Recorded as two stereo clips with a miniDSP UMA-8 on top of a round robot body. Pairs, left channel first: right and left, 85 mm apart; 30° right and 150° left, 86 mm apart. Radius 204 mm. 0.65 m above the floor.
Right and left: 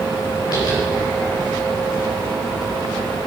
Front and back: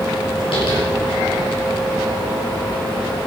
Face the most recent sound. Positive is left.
turn(degrees=-50)